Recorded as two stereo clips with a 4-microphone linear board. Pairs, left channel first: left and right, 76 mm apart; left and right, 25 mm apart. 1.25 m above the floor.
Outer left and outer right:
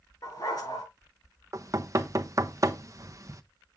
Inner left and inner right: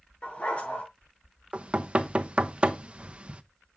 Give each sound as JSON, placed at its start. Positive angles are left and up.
{"t": 0.2, "sound": "a dog barking", "side_deg": 55, "distance_m": 7.0}
{"t": 1.5, "sound": "knocking", "side_deg": -45, "distance_m": 0.9}